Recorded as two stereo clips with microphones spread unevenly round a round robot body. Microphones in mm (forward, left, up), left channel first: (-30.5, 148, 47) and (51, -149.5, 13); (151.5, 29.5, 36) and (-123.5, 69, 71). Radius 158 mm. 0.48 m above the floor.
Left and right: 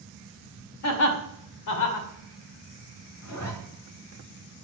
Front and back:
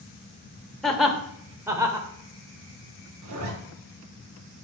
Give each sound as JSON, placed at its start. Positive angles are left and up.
{"t": 0.8, "sound": "laughter", "azimuth_deg": 75, "distance_m": 2.5}
{"t": 3.2, "sound": "a zipper", "azimuth_deg": 145, "distance_m": 3.0}